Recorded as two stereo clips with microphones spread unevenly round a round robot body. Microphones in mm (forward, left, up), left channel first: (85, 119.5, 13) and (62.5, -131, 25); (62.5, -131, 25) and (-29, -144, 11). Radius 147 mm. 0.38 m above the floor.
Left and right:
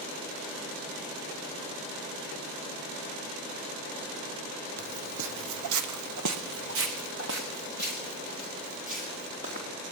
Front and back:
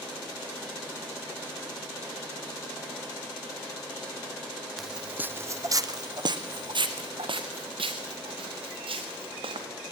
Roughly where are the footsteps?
Right.